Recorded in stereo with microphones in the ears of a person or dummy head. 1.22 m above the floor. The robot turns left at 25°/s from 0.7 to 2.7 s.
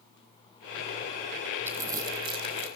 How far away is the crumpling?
About 5.5 m.